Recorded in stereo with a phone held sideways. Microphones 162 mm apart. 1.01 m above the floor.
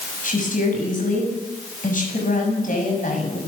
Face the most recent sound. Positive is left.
turn(degrees=55)  # may be behind; listen again after turning